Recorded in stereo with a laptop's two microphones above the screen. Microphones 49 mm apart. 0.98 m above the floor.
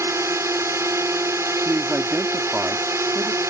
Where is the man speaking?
45° right (ahead or behind).